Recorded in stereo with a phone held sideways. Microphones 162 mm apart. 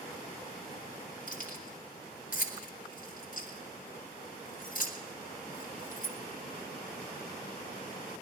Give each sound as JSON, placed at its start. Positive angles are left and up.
{"t": 1.3, "sound": "keys jangling", "side_deg": 55, "distance_m": 2.0}